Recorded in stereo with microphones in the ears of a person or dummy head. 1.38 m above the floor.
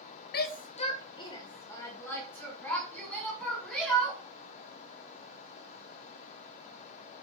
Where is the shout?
55° left (ahead or behind), 0.8 m; by 4.2 s 5° left (ahead or behind), 4.5 m.